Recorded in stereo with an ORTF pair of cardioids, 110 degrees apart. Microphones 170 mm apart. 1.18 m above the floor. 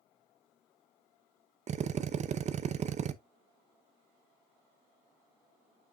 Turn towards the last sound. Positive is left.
turn(degrees=-45)